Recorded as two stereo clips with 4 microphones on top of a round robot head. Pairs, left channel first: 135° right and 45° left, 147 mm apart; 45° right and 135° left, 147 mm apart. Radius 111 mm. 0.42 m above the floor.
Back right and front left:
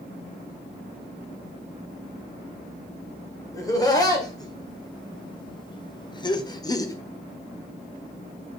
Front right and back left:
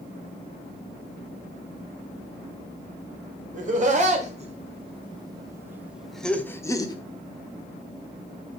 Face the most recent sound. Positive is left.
turn(degrees=-85)